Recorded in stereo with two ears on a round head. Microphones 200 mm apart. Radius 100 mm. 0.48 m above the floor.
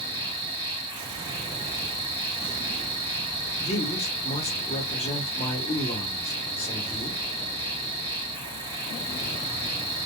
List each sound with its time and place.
0.0 s an insect: 25° right (ahead or behind), 1.4 m
3.6 s a man speaking: 30° left (ahead or behind), 1.0 m